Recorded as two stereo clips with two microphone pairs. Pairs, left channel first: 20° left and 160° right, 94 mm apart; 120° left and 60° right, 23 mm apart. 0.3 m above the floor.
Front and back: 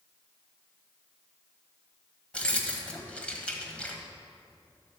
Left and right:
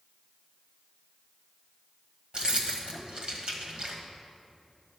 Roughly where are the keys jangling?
Ahead right.